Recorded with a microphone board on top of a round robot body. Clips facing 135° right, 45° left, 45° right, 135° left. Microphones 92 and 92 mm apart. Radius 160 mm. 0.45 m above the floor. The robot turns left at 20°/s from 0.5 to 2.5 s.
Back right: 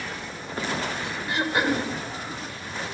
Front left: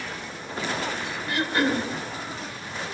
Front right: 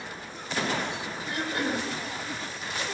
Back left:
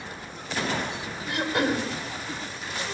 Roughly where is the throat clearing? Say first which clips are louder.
Even, back left 5 dB; behind left.